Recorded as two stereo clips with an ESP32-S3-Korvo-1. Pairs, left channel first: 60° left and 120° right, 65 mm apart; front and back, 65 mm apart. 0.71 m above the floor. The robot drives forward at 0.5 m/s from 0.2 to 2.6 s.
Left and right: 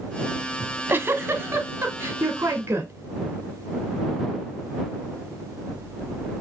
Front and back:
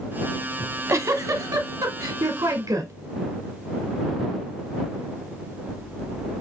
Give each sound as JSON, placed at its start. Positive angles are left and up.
{"t": 0.6, "sound": "a giggle", "azimuth_deg": -165, "distance_m": 0.7}